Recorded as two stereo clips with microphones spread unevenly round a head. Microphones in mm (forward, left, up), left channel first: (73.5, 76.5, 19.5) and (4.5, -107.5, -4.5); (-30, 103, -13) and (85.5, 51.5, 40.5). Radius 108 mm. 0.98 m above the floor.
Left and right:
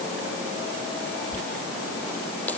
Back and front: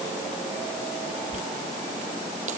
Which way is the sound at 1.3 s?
10° right.